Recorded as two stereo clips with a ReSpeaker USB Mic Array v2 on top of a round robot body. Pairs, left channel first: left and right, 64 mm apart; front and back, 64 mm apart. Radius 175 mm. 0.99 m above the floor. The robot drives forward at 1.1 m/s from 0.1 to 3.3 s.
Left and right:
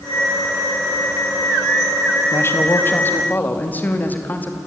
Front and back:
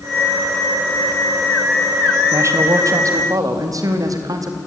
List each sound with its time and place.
2.3 s a man speaking: 135° left, 1.8 m; by 4.6 s 155° left, 2.5 m